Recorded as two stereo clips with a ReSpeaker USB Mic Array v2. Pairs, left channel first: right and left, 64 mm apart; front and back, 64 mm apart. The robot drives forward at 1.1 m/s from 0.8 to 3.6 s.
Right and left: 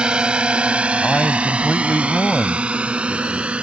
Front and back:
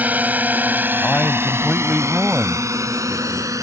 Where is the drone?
150° left; by 3.6 s 160° left.